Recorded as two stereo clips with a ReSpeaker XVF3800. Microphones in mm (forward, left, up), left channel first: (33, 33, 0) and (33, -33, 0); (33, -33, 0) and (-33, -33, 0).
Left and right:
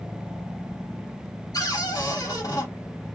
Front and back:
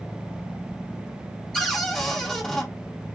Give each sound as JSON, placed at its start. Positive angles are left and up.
{"t": 1.5, "sound": "a cupboard door", "azimuth_deg": 80, "distance_m": 1.7}